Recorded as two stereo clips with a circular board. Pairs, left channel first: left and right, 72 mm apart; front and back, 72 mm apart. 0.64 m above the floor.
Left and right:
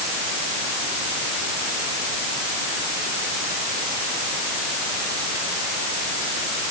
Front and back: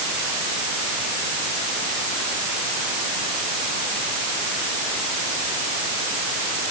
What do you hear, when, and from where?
Only background noise.